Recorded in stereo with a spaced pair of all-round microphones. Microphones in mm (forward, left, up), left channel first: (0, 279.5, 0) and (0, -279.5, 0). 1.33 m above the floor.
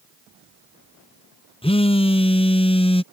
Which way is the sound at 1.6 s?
10° left (ahead or behind).